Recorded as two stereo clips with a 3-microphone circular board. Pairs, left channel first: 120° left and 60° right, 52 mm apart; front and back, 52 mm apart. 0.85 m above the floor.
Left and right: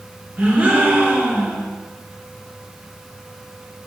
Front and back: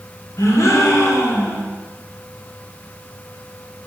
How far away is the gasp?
About 3 m.